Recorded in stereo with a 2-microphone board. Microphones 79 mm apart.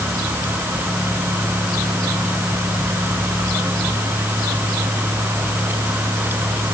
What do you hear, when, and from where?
Only background noise.